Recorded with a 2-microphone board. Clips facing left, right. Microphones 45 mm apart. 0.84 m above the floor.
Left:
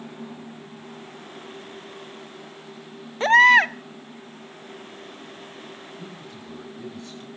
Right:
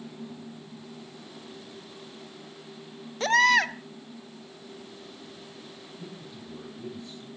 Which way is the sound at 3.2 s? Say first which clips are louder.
Left 7 dB; 30° left (ahead or behind).